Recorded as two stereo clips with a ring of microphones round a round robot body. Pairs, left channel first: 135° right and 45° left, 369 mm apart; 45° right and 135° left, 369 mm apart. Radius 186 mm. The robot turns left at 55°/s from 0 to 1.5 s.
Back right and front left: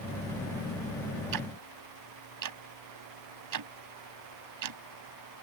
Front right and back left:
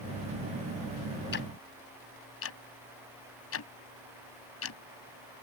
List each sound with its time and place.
1.3 s ticking: 15° left; by 4.8 s 5° left